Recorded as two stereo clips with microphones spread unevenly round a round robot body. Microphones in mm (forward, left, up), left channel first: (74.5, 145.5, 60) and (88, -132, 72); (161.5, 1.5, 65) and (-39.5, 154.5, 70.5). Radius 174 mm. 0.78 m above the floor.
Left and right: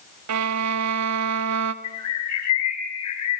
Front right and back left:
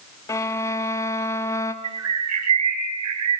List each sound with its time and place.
0.3 s a violin: 115° right, 1.4 m
1.8 s a bird: 130° left, 5.5 m